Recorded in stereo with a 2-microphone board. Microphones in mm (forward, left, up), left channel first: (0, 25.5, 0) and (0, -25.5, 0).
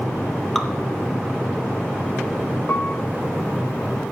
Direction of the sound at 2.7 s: 40° left (ahead or behind).